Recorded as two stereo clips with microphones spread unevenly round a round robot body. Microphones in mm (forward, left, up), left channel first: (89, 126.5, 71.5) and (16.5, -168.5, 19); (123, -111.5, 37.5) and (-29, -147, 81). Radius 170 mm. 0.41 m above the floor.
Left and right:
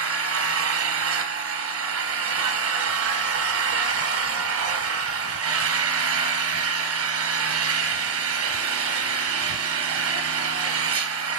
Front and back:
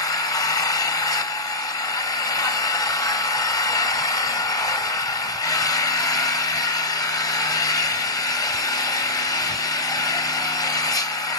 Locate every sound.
0.0 s an engine running: 60° right, 0.9 m